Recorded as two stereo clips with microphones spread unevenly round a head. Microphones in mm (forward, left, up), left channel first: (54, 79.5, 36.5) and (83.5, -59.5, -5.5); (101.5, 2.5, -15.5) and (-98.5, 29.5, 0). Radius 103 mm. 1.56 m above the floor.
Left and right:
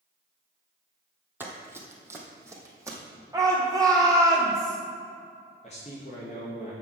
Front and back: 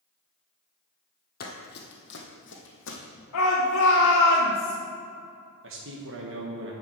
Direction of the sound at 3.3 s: 10° right.